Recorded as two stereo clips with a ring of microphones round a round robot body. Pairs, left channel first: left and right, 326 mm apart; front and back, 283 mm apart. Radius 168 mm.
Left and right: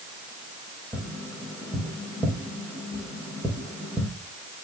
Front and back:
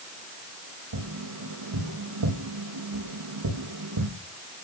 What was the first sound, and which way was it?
Tapping, 175° right.